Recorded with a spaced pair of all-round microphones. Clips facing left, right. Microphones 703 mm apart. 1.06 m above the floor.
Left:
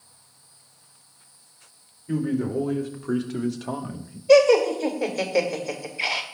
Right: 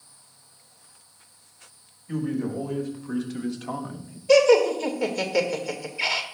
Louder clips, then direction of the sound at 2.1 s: Left 3 dB; 80° left.